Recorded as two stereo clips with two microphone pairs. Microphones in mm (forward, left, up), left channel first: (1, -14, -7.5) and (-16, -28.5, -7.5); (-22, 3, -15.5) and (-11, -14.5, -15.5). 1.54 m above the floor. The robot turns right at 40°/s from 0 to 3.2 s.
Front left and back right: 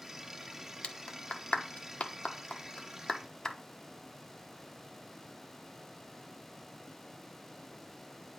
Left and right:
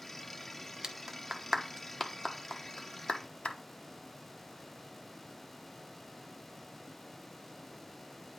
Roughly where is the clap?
Ahead.